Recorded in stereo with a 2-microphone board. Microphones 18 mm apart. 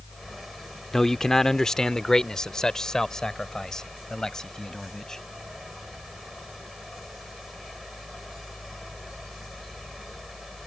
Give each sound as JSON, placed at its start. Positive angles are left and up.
{"t": 0.9, "sound": "a man speaking", "side_deg": 25}